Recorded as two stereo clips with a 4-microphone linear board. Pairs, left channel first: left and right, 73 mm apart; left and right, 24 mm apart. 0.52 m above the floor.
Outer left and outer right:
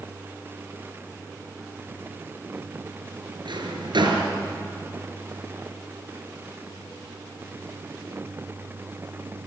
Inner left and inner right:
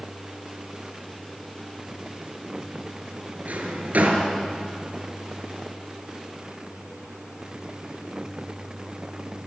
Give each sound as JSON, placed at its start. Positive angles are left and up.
{"t": 3.5, "sound": "a drawer", "side_deg": -80, "distance_m": 3.5}